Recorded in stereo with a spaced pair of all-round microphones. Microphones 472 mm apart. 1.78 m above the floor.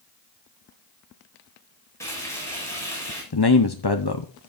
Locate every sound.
2.0 s frying: 5° left (ahead or behind), 7 m
3.3 s a man speaking: 55° left (ahead or behind), 0.8 m